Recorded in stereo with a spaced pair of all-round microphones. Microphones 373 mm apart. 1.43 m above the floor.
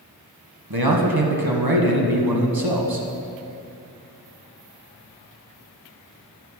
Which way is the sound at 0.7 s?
75° right (ahead or behind).